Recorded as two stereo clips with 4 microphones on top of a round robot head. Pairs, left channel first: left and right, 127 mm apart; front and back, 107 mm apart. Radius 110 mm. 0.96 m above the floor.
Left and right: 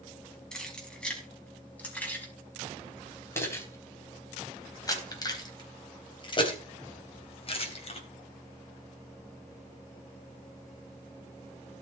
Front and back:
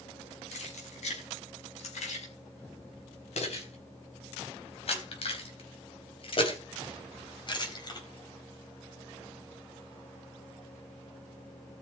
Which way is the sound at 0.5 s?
5° left.